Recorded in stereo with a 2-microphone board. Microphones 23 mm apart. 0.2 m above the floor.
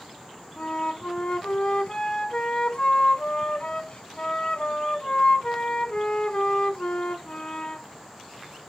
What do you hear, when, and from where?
0.6 s a flute: 55° left (ahead or behind), 0.5 m